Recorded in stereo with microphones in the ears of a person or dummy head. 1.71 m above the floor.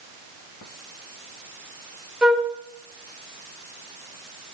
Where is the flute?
5° right (ahead or behind), 0.6 m.